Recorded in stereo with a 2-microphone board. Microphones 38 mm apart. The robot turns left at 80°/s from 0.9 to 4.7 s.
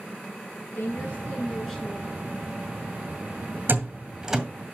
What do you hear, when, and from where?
0.8 s a woman speaking: 65° left, 6 m; by 2.4 s 50° right, 6 m
3.7 s a door slam: 60° right (ahead or behind), 2.0 m; by 4.4 s 5° right (ahead or behind), 2.0 m